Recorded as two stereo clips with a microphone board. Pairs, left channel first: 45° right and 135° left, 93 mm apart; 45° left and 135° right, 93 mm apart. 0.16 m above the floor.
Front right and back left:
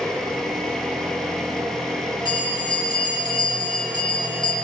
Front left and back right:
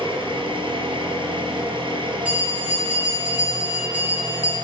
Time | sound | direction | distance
0.0 | an engine running | 130° right | 1.9 m
2.2 | a bell | 65° right | 3.5 m